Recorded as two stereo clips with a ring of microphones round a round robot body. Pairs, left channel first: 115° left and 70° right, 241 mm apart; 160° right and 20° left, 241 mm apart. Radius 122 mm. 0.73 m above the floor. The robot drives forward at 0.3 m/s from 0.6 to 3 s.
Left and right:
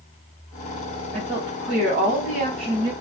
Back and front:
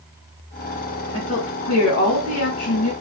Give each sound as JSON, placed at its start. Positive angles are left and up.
{"t": 1.1, "sound": "a woman speaking", "azimuth_deg": -115, "distance_m": 3.5}